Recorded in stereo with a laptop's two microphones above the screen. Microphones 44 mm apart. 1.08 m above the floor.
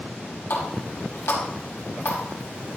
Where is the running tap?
80° left, 5 m.